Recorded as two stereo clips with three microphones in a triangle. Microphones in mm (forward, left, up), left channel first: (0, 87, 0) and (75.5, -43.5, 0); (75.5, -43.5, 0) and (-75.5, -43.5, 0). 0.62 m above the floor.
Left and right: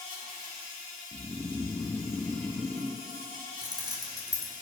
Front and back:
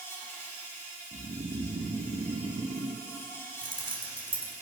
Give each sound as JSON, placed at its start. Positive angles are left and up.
{"t": 0.0, "sound": "an insect", "azimuth_deg": -70, "distance_m": 5.5}
{"t": 1.1, "sound": "snoring", "azimuth_deg": -160, "distance_m": 1.1}
{"t": 3.6, "sound": "keys jangling", "azimuth_deg": -125, "distance_m": 2.5}